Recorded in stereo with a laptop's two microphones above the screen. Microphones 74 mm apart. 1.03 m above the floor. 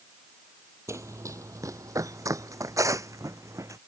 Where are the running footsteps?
40° right (ahead or behind).